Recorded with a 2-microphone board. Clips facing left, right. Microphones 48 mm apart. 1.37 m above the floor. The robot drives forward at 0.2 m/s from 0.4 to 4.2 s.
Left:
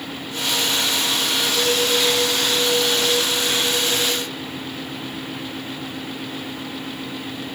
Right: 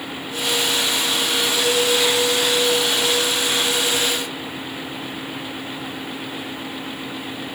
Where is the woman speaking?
I don't hear a woman speaking.